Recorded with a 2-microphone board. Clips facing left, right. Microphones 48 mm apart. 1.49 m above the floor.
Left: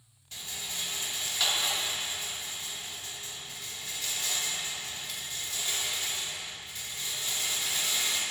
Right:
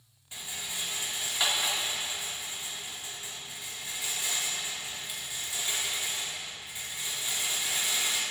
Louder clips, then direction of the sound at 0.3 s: Right 1 dB; 15° right (ahead or behind).